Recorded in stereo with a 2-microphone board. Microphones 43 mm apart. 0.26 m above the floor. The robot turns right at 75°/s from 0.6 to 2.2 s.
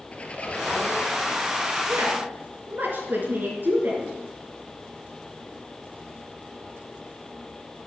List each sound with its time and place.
0.1 s a squeak: 30° left, 1.3 m; by 1.5 s 95° left, 1.3 m
1.9 s a woman speaking: 70° right (ahead or behind), 3.5 m; by 4.1 s 50° right (ahead or behind), 3.5 m